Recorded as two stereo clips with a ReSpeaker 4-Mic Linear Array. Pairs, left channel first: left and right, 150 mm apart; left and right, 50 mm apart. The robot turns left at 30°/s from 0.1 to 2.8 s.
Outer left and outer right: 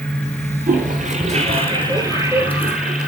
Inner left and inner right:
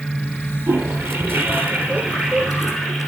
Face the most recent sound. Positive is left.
turn(degrees=-175)